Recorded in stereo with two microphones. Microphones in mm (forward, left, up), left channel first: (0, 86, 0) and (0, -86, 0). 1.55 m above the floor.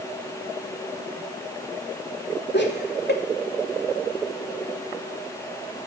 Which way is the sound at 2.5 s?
85° left.